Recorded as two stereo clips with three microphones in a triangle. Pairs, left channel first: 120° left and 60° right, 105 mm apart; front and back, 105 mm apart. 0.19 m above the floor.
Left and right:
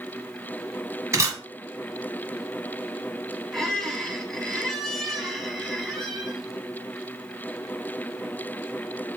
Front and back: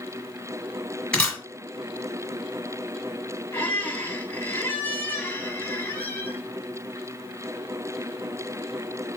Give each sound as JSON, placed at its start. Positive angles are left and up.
{"t": 1.1, "sound": "a camera shutter", "azimuth_deg": -75, "distance_m": 1.5}
{"t": 3.5, "sound": "a squeak", "azimuth_deg": 35, "distance_m": 0.8}